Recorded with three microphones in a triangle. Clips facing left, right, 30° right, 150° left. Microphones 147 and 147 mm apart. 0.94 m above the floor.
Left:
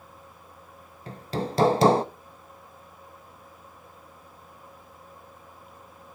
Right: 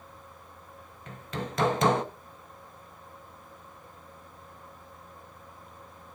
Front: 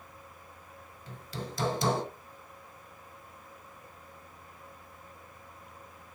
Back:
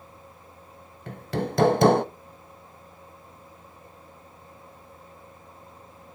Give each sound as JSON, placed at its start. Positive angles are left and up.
{"t": 1.1, "sound": "hammering", "azimuth_deg": 140, "distance_m": 0.6}